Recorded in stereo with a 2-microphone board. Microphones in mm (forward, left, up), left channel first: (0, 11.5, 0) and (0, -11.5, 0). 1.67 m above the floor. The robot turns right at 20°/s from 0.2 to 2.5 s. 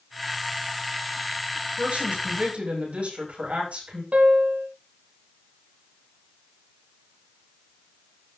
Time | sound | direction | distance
1.8 | a woman speaking | 80° right | 7 m
4.1 | a piano | 80° right | 1.6 m